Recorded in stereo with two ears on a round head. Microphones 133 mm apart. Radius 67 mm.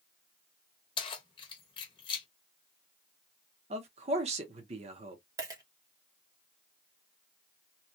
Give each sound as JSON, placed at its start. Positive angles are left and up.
{"t": 1.0, "sound": "keys jangling", "side_deg": 35, "distance_m": 1.0}
{"t": 3.7, "sound": "a man speaking", "side_deg": -45, "distance_m": 1.0}
{"t": 5.4, "sound": "a dropped coin", "side_deg": -25, "distance_m": 0.9}